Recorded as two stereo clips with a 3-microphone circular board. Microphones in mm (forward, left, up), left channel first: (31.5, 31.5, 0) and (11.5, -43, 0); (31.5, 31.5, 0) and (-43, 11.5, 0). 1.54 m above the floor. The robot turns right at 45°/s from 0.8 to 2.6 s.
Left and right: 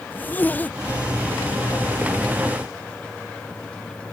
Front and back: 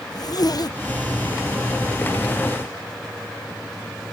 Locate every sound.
0.1 s a zipper: 10° left; by 1.3 s 30° left